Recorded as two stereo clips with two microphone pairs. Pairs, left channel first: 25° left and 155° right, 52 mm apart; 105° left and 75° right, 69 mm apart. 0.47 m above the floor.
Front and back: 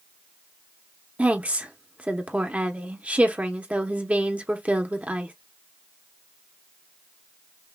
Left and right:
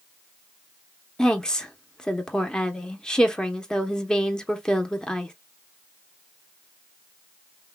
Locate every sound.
1.2 s a woman speaking: straight behind, 1.0 m